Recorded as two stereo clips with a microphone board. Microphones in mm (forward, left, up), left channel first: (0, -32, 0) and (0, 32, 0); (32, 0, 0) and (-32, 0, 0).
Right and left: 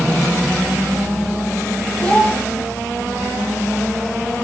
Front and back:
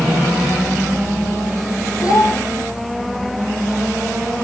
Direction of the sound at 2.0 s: 20° right.